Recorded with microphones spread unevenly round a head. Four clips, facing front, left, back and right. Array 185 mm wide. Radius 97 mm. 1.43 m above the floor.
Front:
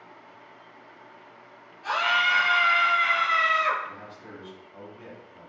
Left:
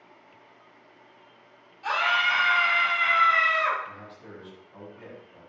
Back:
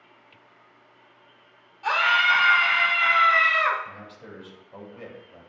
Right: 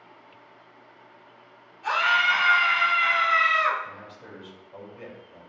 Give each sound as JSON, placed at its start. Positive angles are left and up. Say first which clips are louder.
{"t": 1.8, "sound": "a scream", "louder": "right 2 dB, back 3 dB", "azimuth_deg": 175, "distance_m": 3.0}
{"t": 3.9, "sound": "a man speaking", "louder": "right 1 dB, front 1 dB", "azimuth_deg": -145, "distance_m": 3.5}